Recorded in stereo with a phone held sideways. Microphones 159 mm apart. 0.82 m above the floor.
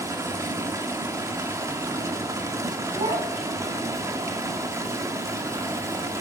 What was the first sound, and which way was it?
Running water, 20° right (ahead or behind).